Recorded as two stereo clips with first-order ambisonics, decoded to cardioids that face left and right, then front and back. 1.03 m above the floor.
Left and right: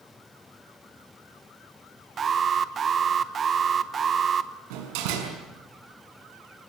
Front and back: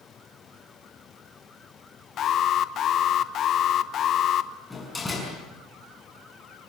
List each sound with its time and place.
2.2 s an alarm: 35° right, 1.0 m
4.7 s a door slam: 85° right, 6 m